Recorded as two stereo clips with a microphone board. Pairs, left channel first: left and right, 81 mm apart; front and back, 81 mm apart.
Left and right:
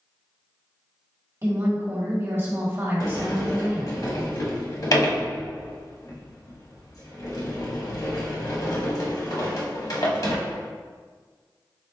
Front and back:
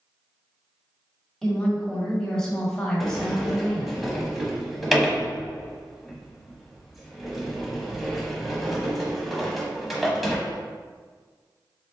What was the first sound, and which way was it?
A woman speaking, 75° right.